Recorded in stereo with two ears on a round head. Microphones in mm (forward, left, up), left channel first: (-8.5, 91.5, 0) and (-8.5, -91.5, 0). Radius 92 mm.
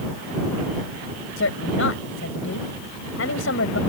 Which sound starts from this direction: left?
A woman speaking, at 1.4 s.